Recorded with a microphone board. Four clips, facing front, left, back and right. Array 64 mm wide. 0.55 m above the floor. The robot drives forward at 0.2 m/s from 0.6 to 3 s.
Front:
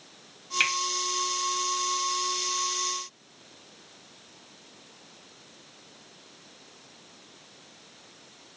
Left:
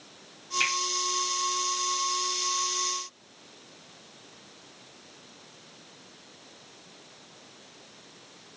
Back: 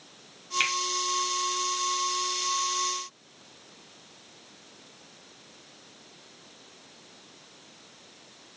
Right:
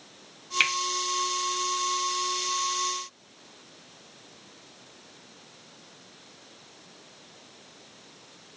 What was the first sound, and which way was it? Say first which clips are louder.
A finger snap: right 3 dB, front 2 dB; 80° right.